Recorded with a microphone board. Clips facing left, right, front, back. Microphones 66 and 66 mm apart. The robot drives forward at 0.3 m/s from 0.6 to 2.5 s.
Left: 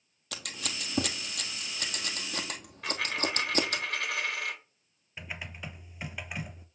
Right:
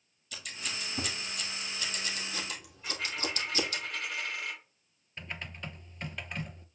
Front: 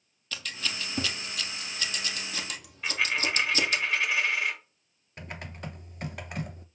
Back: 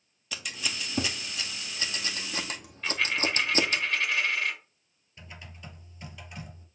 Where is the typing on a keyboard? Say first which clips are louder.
Left 1 dB, front 7 dB; 10° left, 0.6 m.